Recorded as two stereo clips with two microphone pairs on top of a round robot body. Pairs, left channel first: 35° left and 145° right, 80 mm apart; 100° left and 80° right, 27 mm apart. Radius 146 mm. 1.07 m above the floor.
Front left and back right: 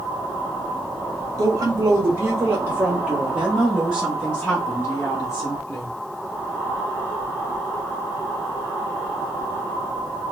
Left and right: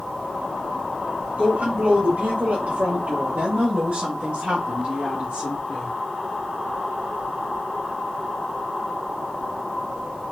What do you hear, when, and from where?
1.4 s a woman speaking: 100° right, 1.3 m; by 6.0 s 10° right, 1.8 m